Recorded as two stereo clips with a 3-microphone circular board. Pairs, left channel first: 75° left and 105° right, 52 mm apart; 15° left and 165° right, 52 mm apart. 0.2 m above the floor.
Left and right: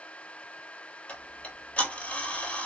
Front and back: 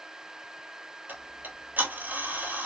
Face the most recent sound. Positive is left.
turn(degrees=140)